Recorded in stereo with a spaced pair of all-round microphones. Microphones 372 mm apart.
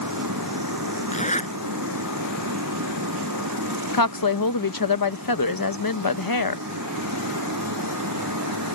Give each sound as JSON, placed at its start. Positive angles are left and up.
{"t": 0.0, "sound": "a fan", "side_deg": -55}
{"t": 1.1, "sound": "a zipper", "side_deg": 20}
{"t": 3.9, "sound": "a woman speaking", "side_deg": 65}